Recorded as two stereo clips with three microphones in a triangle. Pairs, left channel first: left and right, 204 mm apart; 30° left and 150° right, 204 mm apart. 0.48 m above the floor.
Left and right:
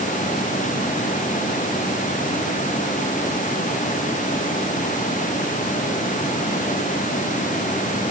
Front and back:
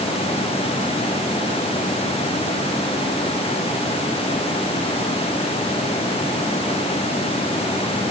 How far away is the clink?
I don't hear a clink.